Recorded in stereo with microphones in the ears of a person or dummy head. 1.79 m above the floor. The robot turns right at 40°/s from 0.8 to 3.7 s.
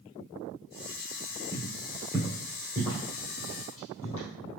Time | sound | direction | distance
1.5 | footsteps | 10° right (ahead or behind) | 1.9 m